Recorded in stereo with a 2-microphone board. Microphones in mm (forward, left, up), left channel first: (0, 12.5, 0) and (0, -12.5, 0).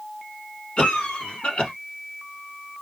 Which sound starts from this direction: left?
A cough, at 0.8 s.